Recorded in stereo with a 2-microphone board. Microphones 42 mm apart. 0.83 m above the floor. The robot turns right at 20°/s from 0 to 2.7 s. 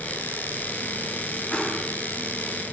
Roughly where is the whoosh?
Left.